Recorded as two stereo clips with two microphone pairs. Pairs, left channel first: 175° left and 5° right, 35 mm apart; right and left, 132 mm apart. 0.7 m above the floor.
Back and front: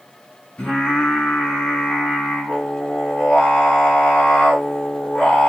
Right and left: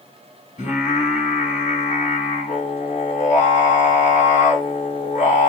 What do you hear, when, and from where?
0.6 s singing: 120° right, 2.0 m